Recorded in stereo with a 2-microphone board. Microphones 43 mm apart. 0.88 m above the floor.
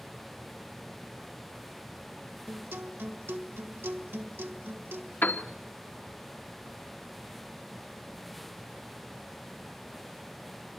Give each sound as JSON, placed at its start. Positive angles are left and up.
{"t": 2.5, "sound": "a guitar", "side_deg": -75, "distance_m": 1.6}
{"t": 5.2, "sound": "a piano", "side_deg": 55, "distance_m": 1.5}